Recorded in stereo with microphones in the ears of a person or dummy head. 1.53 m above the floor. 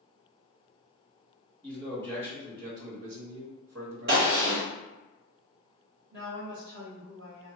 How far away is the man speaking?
About 0.9 m.